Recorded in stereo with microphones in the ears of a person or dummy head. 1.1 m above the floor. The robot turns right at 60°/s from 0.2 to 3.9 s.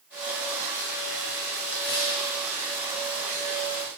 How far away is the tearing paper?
About 3 m.